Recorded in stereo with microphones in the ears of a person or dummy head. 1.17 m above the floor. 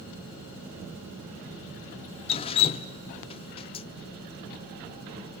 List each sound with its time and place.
2.3 s dripping: 30° left (ahead or behind), 0.6 m